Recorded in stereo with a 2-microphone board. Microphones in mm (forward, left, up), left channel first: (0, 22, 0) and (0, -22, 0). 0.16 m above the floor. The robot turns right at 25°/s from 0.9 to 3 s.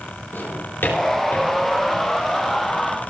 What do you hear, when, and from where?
0.3 s a drawer: 55° left (ahead or behind), 3.5 m; by 1.5 s 70° left (ahead or behind), 3.5 m